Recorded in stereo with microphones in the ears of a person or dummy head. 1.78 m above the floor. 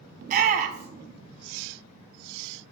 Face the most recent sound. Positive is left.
turn(degrees=-50)  # may be behind; listen again after turning